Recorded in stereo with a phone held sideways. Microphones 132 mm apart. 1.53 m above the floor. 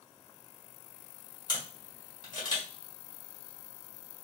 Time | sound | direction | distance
1.5 | a camera shutter | 30° left (ahead or behind) | 1.5 m